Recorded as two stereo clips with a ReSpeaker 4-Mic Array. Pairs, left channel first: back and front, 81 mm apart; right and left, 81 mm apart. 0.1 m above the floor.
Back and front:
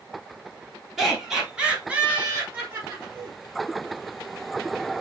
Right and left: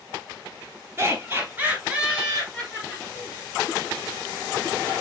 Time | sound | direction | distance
1.0 | laughter | 85° left | 1.5 m